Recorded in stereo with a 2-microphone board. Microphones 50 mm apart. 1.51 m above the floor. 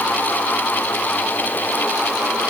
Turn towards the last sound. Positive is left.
No sound to turn to.